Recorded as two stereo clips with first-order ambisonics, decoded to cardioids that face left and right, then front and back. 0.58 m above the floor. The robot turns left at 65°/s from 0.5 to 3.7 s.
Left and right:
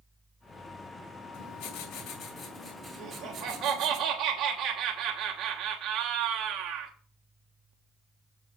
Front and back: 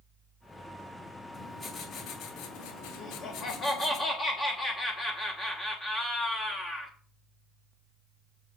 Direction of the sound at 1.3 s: 105° left.